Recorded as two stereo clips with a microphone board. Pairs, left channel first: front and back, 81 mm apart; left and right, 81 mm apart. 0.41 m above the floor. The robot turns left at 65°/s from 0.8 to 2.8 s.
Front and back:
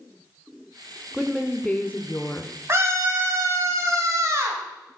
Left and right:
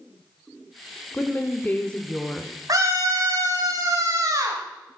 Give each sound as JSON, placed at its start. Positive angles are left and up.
{"t": 1.1, "sound": "a woman speaking", "azimuth_deg": 90, "distance_m": 0.8}
{"t": 2.7, "sound": "a scream", "azimuth_deg": -125, "distance_m": 2.5}